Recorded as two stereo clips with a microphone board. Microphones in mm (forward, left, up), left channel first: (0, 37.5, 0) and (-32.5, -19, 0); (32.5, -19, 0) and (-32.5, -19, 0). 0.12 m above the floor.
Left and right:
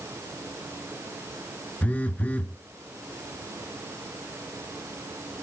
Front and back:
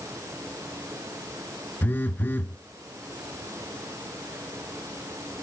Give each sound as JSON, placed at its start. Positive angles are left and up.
{"t": 1.8, "sound": "a phone buzzing", "azimuth_deg": 20, "distance_m": 0.7}